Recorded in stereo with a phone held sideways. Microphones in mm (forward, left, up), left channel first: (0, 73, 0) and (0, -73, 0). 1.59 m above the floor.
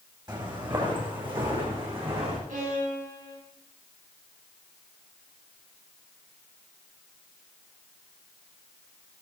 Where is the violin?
75° right (ahead or behind), 5.5 m.